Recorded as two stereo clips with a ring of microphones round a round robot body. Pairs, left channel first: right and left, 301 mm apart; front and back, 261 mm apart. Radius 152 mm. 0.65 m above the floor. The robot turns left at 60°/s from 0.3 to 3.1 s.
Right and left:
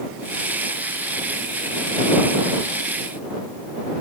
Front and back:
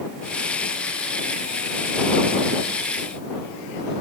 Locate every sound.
Only background noise.